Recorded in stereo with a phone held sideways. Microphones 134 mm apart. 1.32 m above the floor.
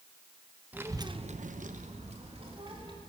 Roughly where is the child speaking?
Centre.